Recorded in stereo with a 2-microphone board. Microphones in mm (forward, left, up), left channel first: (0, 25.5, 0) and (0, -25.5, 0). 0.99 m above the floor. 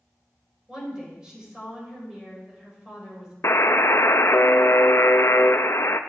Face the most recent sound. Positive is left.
turn(degrees=55)  # may be behind; listen again after turning